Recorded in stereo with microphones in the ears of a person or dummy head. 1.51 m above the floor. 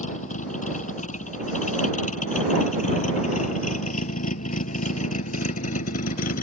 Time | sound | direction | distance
0.0 | a vehicle | 45° left (ahead or behind) | ?